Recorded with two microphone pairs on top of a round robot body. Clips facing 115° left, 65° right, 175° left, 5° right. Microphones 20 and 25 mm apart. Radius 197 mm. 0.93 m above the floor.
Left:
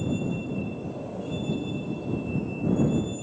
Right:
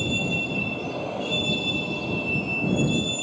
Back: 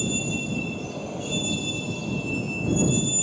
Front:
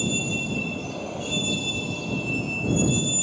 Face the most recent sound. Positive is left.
turn(degrees=-85)